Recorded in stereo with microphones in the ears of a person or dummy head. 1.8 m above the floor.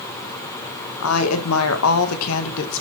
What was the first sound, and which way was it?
A woman speaking, 85° left.